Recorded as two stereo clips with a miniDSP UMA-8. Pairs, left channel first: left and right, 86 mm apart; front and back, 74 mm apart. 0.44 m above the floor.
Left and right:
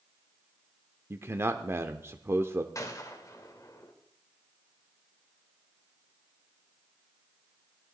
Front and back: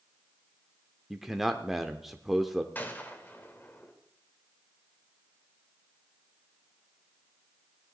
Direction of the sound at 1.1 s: 95° right.